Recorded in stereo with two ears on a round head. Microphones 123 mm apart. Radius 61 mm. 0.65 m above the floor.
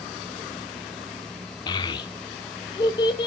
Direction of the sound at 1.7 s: 30° left (ahead or behind).